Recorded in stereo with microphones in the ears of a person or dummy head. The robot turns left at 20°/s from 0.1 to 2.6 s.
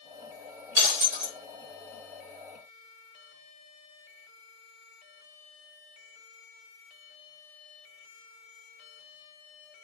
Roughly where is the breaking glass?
Right.